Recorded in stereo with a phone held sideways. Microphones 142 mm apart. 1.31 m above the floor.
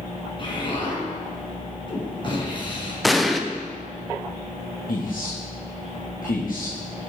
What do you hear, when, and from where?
0.4 s an explosion: 35° left (ahead or behind), 3 m
3.0 s an explosion: centre (ahead or behind), 0.7 m
4.9 s a man speaking: 75° left (ahead or behind), 1.7 m